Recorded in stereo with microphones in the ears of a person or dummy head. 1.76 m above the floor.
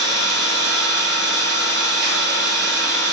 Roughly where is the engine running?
Right.